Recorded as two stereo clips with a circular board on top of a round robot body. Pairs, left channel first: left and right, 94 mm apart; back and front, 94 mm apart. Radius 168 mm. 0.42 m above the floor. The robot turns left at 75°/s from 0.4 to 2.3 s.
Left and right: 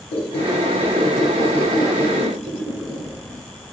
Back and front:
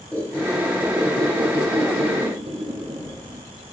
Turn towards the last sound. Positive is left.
turn(degrees=-40)